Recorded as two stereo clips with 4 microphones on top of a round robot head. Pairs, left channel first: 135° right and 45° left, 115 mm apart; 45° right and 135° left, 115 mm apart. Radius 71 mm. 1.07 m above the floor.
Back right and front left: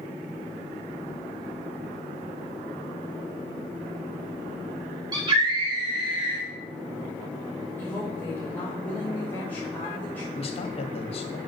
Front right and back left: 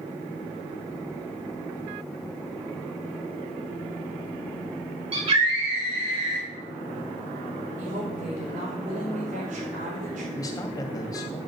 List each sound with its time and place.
5.1 s a scream: 100° left, 5 m; by 6.5 s 95° left, 4 m
7.8 s a woman speaking: 150° left, 5.5 m
10.3 s a man speaking: 105° right, 2 m